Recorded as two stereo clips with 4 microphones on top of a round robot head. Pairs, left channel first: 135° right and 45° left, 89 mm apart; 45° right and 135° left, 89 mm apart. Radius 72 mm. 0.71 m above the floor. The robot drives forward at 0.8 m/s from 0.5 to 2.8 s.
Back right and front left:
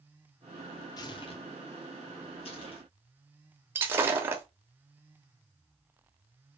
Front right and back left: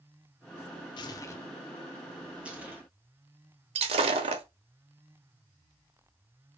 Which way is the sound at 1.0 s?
85° right.